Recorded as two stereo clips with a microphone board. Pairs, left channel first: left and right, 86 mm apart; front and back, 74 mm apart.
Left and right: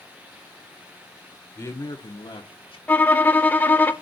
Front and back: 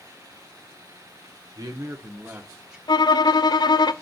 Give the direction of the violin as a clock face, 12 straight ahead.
11 o'clock.